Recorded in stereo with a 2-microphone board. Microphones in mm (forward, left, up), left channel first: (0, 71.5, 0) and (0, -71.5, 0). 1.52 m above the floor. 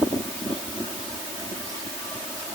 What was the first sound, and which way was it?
Only background noise.